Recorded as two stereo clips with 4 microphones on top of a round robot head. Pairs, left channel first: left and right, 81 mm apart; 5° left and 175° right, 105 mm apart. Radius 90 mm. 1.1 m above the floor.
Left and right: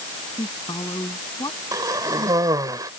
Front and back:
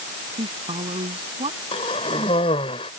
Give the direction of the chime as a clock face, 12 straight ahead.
No chime in this recording.